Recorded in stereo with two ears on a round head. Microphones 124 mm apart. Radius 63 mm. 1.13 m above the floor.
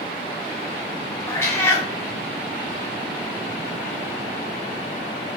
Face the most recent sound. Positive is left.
turn(degrees=20)  # may be behind; listen again after turning